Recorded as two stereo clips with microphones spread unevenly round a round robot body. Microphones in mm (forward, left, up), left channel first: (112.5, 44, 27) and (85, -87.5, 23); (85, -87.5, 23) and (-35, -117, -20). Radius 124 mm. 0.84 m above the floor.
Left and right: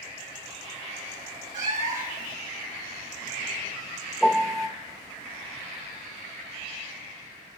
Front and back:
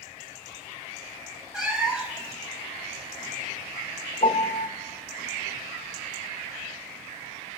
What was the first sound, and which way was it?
A cat meowing, 75° right.